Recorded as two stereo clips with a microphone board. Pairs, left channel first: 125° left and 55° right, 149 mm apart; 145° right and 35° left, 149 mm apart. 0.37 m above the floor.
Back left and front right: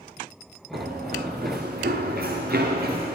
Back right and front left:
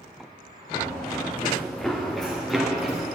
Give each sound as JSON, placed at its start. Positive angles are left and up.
{"t": 0.7, "sound": "running footsteps", "azimuth_deg": -60, "distance_m": 1.7}